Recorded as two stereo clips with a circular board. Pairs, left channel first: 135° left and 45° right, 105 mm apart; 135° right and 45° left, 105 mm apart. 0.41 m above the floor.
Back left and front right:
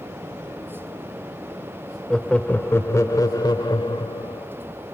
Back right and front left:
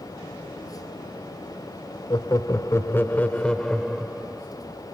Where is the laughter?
145° right, 1.0 m; by 4.5 s 125° left, 1.4 m.